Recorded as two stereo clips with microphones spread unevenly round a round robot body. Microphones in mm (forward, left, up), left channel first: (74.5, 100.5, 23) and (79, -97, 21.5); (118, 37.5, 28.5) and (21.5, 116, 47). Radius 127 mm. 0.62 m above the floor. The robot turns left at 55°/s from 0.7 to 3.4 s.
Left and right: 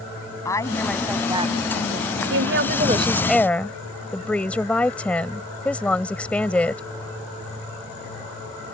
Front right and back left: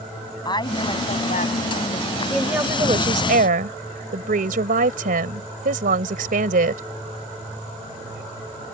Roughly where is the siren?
I don't hear a siren.